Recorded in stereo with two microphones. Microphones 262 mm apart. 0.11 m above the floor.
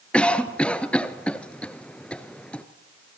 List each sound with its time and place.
0.1 s a cough: 5° left (ahead or behind), 1.6 m